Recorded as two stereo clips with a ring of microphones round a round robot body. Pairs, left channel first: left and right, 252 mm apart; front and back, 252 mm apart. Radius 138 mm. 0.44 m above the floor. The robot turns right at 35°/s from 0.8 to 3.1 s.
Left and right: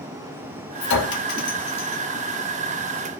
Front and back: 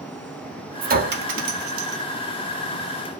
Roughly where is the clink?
Behind left.